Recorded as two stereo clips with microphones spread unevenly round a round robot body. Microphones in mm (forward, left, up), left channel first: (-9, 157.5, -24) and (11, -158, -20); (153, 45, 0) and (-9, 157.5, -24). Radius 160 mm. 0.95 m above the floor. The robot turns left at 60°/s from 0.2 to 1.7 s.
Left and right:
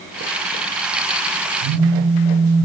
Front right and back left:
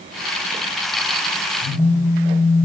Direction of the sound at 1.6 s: 80° right.